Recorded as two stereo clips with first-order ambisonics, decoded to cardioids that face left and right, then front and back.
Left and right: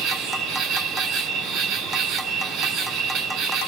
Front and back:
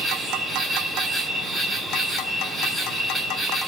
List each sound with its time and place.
0.0 s an insect: 90° right, 1.5 m